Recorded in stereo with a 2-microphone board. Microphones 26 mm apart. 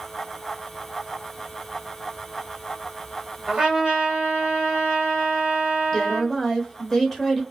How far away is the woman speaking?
About 0.8 m.